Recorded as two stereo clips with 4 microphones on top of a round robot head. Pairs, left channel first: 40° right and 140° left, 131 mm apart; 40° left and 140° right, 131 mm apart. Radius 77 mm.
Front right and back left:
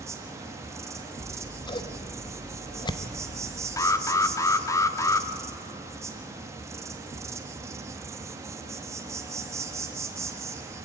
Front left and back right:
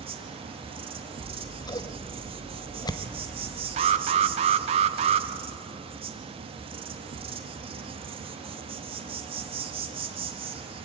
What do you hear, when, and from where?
0.0 s an insect: 160° right, 1.8 m
1.2 s scissors: 5° right, 1.0 m
3.8 s an alarm: 105° right, 0.8 m